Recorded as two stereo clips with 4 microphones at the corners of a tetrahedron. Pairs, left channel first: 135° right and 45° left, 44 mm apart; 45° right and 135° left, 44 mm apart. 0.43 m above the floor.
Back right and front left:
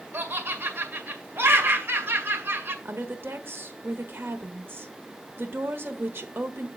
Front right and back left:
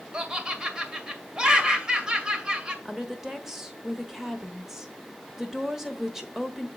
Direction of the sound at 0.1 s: 70° left.